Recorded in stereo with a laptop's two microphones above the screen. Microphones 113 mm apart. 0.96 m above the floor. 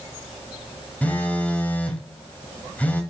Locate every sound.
1.0 s a phone buzzing: 15° left (ahead or behind), 2 m